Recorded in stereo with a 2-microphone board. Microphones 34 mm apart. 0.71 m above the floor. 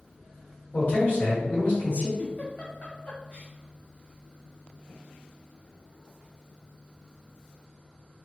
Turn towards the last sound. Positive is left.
turn(degrees=35)  # may be behind; listen again after turning